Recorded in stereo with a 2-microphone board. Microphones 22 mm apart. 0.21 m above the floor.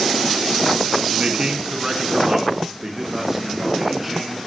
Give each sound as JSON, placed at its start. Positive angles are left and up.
{"t": 1.1, "sound": "a man speaking", "side_deg": -50, "distance_m": 1.6}